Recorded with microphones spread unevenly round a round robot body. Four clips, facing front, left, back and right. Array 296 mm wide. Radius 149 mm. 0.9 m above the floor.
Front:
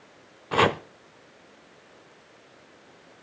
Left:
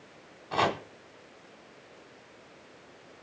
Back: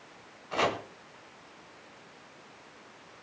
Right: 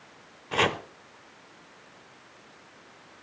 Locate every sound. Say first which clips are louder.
0.5 s chopping: right 1 dB, front 7 dB; 15° right, 1.1 m